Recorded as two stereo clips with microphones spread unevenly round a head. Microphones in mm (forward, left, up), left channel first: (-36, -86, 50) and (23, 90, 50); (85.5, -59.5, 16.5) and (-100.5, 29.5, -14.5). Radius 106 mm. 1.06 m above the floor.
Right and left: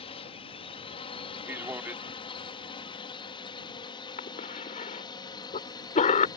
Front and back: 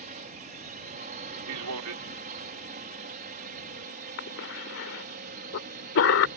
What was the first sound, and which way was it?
A drone, 165° right.